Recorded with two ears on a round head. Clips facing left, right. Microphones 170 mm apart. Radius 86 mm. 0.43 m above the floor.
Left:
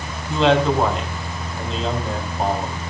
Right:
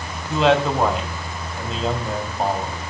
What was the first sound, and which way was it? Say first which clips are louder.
A man speaking: left 1 dB; 5° right (ahead or behind).